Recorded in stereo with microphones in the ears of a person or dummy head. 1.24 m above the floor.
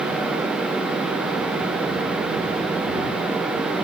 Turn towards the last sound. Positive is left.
No sound to turn to.